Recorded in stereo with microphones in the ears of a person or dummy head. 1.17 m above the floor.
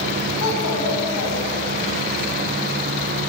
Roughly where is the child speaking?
Left.